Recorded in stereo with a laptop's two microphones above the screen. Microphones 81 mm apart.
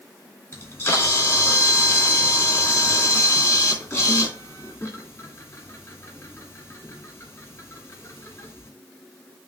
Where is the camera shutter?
35° left (ahead or behind), 2 m.